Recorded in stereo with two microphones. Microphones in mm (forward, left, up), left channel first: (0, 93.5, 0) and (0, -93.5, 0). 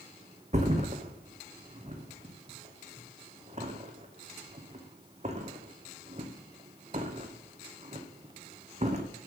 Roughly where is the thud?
Right.